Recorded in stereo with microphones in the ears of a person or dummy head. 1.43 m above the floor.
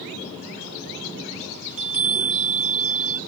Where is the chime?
45° right (ahead or behind), 1.6 m.